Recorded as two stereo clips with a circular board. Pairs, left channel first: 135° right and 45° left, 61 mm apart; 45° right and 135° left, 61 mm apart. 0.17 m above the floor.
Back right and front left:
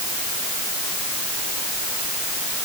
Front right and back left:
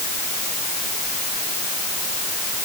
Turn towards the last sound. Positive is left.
No sound to turn to.